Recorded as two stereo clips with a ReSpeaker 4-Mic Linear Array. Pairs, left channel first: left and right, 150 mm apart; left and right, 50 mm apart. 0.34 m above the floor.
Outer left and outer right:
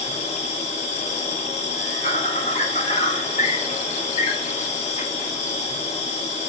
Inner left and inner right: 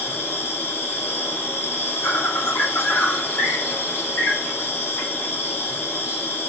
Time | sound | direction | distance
0.0 | an insect | 50° left (ahead or behind) | 2.5 m